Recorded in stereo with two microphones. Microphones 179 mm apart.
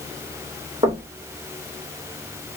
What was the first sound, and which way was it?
Knocking, 30° right (ahead or behind).